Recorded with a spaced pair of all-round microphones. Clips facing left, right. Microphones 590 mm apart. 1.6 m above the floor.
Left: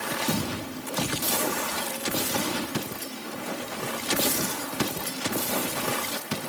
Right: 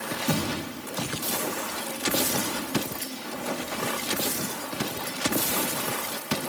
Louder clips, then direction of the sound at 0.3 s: Right 2 dB; 20° right (ahead or behind).